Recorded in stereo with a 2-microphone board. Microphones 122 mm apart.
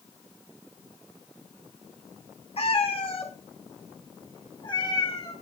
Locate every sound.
2.6 s a cat meowing: 50° left (ahead or behind), 3.5 m; by 5.3 s 35° left (ahead or behind), 4.5 m